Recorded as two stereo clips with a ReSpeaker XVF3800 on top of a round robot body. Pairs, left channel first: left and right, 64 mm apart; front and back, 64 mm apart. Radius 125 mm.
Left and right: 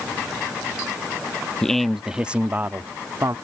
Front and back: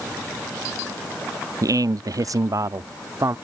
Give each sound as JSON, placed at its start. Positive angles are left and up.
{"t": 1.6, "sound": "a man speaking", "azimuth_deg": 170}